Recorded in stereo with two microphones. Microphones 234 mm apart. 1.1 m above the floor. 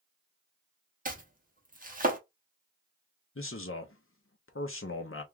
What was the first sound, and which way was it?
Chopping, 35° right (ahead or behind).